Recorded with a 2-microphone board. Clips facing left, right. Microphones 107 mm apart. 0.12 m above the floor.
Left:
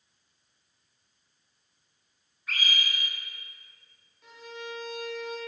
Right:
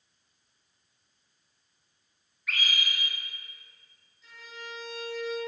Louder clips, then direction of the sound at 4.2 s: Left 5 dB; 60° left (ahead or behind).